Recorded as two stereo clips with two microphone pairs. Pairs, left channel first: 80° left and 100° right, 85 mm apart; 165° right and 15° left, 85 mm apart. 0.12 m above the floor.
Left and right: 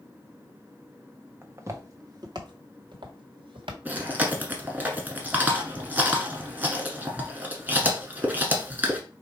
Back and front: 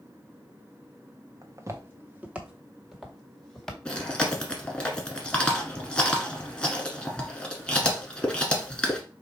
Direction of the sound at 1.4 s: 35° right.